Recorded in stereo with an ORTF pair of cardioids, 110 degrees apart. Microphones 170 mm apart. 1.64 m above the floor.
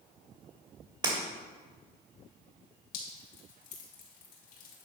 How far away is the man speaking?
No man speaking in this recording.